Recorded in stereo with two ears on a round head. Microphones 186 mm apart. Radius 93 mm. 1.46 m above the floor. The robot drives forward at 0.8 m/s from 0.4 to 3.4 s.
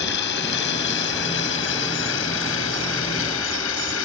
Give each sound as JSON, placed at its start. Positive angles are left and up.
{"t": 0.0, "sound": "running water", "side_deg": 55}